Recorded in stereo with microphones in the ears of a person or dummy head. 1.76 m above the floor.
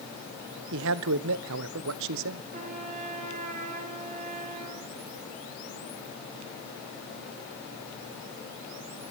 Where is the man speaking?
80° right, 1.1 m.